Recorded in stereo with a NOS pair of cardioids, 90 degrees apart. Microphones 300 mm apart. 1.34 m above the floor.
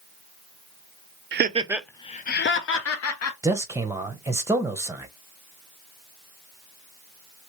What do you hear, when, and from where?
1.3 s laughter: 40° right, 0.6 m; by 3.3 s 55° left, 1.4 m
3.4 s a man speaking: 10° right, 0.9 m